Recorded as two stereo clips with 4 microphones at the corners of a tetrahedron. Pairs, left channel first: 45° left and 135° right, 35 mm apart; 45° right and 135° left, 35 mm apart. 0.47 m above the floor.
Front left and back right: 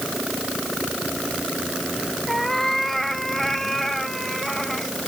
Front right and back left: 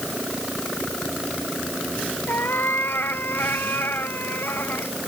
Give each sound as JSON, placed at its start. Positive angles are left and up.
{"t": 2.3, "sound": "a cat meowing", "azimuth_deg": -35}